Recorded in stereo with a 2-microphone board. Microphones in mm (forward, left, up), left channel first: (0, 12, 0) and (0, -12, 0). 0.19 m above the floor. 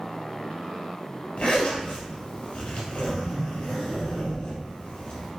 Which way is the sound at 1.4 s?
65° left (ahead or behind).